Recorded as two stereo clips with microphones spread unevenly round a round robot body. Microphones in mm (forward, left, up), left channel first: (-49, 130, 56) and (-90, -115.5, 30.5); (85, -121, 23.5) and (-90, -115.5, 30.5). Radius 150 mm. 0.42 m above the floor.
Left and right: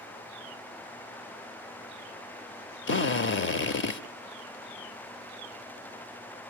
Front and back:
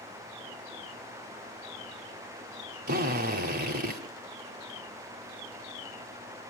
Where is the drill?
125° left, 1.0 m.